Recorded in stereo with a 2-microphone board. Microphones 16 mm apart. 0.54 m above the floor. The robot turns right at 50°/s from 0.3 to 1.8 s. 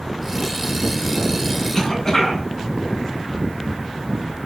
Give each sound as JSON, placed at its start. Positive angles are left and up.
{"t": 1.7, "sound": "a cough", "side_deg": 30, "distance_m": 6.5}